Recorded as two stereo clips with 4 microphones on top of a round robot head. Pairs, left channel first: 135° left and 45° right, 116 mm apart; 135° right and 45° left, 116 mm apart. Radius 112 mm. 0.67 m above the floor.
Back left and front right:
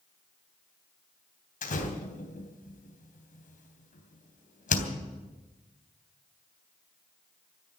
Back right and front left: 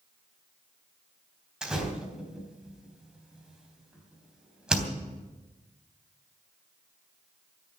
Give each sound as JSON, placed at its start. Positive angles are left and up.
{"t": 1.6, "sound": "a door slam", "azimuth_deg": 125, "distance_m": 3.5}